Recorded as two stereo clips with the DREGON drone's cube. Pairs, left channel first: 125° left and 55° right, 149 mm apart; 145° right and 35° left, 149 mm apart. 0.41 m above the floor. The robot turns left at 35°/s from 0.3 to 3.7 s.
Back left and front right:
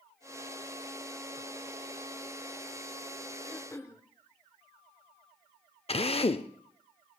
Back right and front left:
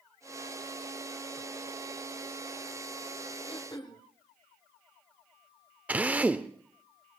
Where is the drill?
110° left, 0.6 m.